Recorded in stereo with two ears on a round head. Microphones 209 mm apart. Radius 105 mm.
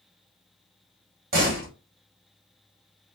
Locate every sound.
1.3 s a door slam: 40° right (ahead or behind), 2 m